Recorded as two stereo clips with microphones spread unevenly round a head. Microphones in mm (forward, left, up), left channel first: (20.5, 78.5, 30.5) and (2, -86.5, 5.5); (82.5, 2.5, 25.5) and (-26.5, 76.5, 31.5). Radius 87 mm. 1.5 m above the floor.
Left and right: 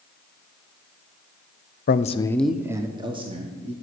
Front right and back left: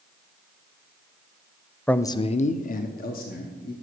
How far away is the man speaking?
About 0.6 m.